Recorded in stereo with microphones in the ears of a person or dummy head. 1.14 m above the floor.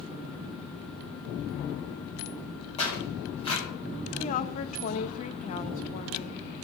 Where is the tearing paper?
35° left (ahead or behind), 4.5 m.